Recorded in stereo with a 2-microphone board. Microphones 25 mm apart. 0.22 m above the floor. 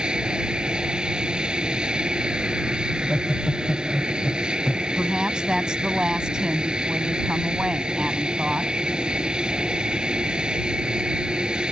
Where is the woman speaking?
35° right (ahead or behind).